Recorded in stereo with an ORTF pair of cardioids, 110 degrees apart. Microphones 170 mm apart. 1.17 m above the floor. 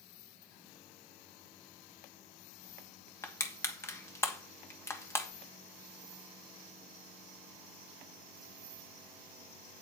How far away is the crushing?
About 2 m.